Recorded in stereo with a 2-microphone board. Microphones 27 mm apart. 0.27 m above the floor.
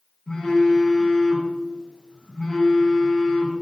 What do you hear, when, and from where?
0.3 s a phone buzzing: 40° left (ahead or behind), 5.5 m